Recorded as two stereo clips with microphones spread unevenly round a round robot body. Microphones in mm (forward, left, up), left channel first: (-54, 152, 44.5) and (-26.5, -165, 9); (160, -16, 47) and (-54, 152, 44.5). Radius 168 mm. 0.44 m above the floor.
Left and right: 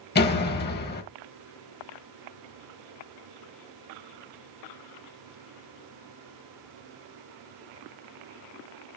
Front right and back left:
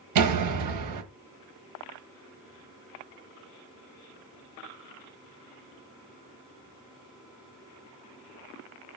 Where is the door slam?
160° left, 1.7 m.